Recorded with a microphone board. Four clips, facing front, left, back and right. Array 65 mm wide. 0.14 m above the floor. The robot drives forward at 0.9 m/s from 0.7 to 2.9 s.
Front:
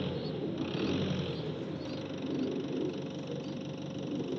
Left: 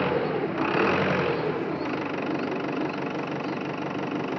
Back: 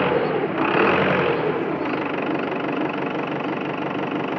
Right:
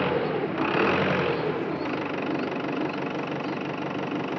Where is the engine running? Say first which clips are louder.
Even, back 16 dB; 175° left; by 4.4 s straight behind.